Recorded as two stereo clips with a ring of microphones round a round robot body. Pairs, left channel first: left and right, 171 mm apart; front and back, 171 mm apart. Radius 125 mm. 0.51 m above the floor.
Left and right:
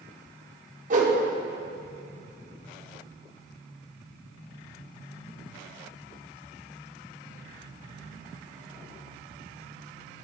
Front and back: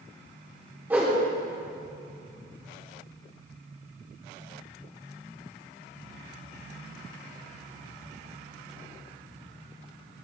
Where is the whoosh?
100° right, 1.4 m.